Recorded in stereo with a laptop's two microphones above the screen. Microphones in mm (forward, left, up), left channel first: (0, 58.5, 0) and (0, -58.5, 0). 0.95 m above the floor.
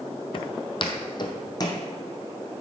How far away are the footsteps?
About 1.3 m.